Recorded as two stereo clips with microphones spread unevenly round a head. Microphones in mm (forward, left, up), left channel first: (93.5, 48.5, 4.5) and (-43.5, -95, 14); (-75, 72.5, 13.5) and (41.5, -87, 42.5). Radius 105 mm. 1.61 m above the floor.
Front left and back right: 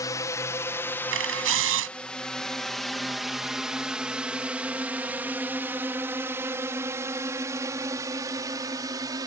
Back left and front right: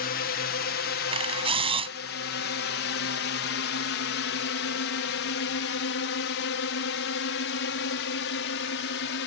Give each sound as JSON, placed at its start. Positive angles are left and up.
{"t": 0.0, "sound": "a drone", "azimuth_deg": 120}
{"t": 1.1, "sound": "a camera shutter", "azimuth_deg": -115}